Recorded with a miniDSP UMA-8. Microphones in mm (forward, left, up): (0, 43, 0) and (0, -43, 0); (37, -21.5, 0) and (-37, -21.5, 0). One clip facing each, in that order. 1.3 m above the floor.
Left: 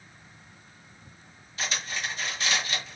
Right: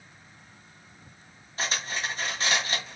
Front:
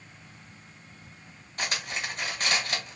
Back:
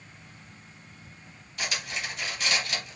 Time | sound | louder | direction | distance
1.6 | cutlery clinking | right 2 dB, front 1 dB | 40° right | 1.0 m